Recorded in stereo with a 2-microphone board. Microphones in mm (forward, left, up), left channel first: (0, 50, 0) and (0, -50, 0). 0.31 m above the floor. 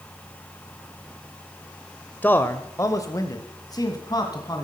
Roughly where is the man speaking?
Centre.